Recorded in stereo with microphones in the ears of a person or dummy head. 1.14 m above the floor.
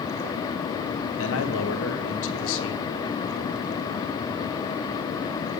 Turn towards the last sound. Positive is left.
turn(degrees=80)